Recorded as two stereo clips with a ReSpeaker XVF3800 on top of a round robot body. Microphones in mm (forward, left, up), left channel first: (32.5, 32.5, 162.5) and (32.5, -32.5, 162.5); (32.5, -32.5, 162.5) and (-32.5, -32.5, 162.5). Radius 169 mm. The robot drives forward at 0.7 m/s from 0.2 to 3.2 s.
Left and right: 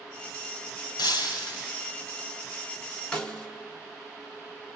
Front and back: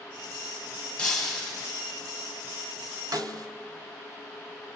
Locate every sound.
1.0 s breaking glass: 85° left, 1.9 m; by 1.7 s 100° left, 1.9 m
3.1 s a snare drum: 165° left, 1.3 m